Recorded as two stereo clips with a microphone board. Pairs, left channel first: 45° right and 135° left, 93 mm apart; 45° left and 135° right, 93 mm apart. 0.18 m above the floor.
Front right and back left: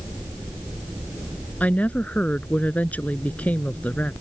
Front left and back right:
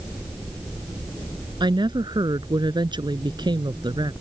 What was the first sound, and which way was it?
A woman speaking, 115° right.